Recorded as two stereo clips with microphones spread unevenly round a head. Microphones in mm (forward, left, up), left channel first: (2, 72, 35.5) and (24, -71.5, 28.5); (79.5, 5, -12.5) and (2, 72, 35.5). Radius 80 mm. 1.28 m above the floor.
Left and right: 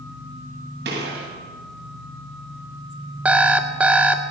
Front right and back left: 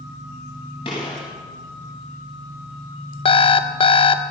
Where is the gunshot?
95° right, 8 m.